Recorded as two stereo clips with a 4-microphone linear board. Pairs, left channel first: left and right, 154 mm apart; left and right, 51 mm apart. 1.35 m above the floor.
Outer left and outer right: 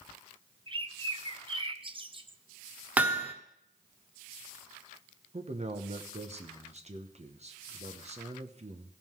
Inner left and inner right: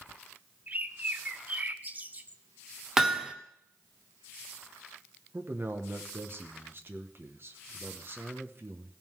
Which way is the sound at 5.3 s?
45° right (ahead or behind).